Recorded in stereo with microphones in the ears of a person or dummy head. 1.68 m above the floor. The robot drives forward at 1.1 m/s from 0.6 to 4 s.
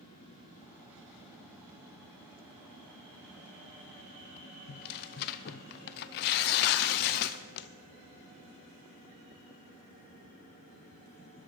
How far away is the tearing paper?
About 0.5 m.